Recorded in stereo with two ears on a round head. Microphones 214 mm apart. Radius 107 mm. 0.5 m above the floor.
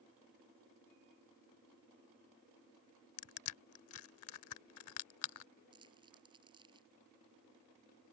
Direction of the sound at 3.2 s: 65° left (ahead or behind).